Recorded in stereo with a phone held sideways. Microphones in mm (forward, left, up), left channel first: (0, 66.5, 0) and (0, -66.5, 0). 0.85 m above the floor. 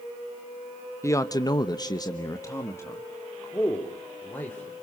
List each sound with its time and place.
1.0 s a man speaking: 20° left (ahead or behind), 1.1 m; by 4.8 s 15° left (ahead or behind), 4 m